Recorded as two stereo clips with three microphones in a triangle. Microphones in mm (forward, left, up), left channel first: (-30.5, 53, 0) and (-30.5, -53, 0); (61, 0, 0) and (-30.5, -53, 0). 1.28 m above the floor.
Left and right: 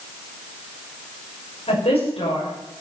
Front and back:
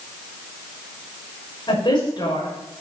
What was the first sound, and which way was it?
A woman speaking, 75° left.